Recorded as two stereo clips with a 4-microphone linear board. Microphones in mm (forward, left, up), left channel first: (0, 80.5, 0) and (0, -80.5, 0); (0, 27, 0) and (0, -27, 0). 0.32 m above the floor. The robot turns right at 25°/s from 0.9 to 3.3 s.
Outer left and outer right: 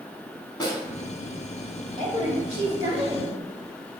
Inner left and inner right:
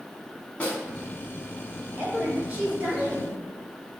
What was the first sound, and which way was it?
A snare drum, 25° left (ahead or behind).